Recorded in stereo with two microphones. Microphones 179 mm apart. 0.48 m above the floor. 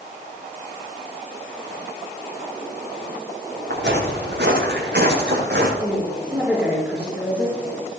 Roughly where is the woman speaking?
Centre.